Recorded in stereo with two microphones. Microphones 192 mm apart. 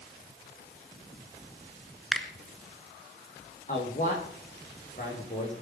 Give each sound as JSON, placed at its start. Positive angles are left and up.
{"t": 2.1, "sound": "a finger snap", "side_deg": 0, "distance_m": 1.6}
{"t": 3.7, "sound": "a man speaking", "side_deg": 40, "distance_m": 6.5}